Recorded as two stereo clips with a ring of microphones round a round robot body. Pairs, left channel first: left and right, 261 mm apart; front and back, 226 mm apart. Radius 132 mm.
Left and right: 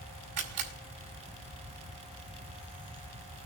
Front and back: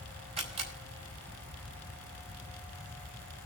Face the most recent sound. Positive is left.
turn(degrees=-115)